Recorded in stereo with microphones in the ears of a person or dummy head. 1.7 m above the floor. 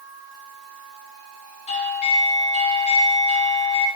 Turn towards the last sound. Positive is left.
turn(degrees=40)  # may be behind; listen again after turning